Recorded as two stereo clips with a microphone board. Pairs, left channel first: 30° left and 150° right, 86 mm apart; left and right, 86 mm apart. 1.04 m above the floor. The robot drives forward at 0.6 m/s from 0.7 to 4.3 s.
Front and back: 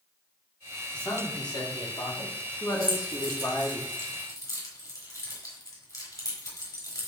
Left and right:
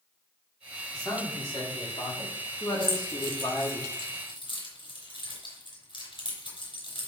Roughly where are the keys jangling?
Left.